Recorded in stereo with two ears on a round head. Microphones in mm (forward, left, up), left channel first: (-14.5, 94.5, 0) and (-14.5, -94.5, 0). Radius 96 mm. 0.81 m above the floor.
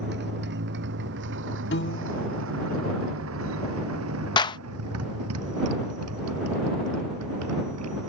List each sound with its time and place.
0.0 s a motorcycle: 55° right (ahead or behind); by 8.1 s 75° right (ahead or behind)
1.7 s a piano: 50° left (ahead or behind)
4.4 s a clap: 20° left (ahead or behind)